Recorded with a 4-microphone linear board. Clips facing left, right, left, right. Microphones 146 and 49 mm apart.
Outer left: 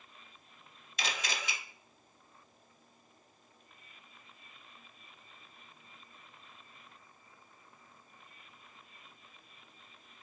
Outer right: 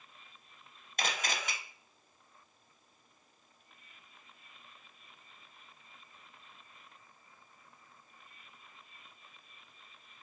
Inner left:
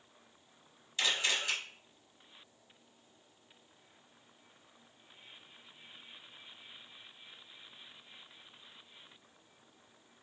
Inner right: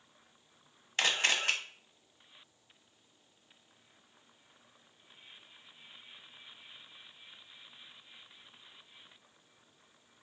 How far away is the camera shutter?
About 0.7 m.